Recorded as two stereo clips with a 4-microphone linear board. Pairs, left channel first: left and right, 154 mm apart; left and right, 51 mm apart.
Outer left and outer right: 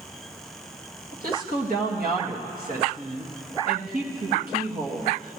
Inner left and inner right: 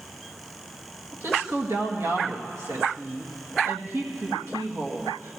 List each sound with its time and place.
1.1 s a woman speaking: 70° right (ahead or behind), 1.8 m